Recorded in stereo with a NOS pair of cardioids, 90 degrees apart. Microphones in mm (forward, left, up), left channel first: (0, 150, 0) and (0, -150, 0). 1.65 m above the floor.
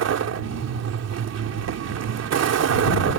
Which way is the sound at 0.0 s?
60° right.